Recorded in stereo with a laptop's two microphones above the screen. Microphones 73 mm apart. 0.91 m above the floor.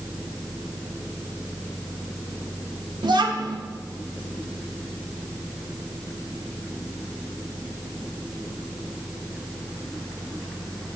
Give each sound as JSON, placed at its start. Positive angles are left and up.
{"t": 3.0, "sound": "a child speaking", "side_deg": -80, "distance_m": 1.1}